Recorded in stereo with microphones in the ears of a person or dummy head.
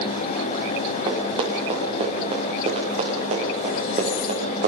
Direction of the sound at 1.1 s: 25° right (ahead or behind).